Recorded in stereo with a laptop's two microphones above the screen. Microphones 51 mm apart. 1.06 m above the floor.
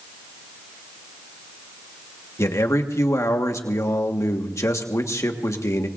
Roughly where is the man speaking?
Left.